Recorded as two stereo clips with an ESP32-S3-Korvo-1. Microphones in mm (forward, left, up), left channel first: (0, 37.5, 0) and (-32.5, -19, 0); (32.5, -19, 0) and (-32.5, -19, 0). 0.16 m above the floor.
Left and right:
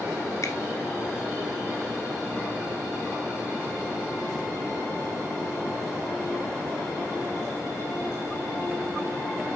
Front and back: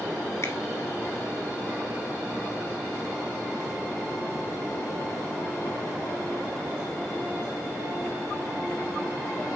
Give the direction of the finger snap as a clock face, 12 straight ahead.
11 o'clock.